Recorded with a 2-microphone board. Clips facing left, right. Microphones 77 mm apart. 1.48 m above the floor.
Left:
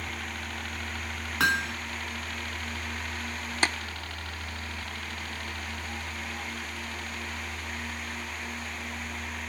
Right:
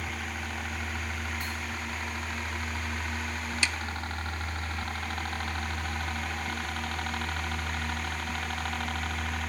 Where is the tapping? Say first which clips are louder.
Left 5 dB; 40° left (ahead or behind).